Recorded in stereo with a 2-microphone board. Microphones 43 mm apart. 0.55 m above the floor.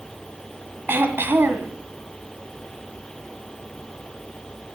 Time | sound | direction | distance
0.9 | throat clearing | 65° right (ahead or behind) | 1.6 m